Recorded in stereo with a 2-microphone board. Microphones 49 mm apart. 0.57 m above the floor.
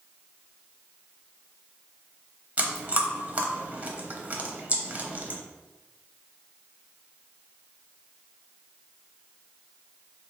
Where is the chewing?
35° right (ahead or behind), 0.6 m.